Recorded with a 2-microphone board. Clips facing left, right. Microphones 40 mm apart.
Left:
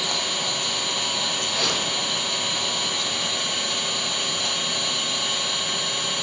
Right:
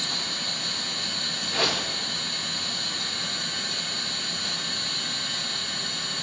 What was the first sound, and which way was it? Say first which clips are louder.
An engine running: left 5 dB; 70° left (ahead or behind).